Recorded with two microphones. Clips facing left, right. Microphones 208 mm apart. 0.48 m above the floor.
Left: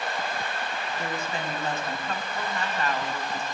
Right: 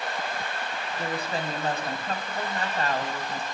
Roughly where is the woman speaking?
Right.